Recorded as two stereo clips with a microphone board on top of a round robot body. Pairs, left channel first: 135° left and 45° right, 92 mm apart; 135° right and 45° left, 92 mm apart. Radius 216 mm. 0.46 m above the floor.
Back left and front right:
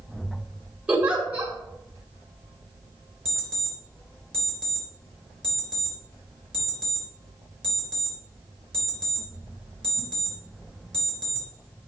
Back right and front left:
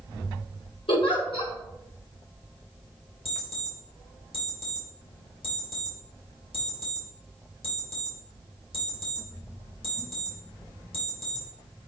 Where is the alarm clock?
140° right, 3.5 m.